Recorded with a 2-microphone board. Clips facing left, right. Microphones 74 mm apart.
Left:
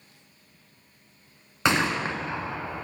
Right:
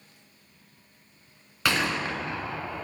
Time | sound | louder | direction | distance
1.6 | a gunshot | left 3 dB | 25° left (ahead or behind) | 1.0 m